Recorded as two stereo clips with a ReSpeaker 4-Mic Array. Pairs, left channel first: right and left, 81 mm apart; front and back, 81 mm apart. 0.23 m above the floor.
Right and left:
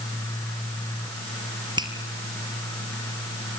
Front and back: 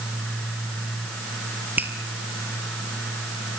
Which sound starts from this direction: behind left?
A finger snap, at 1.8 s.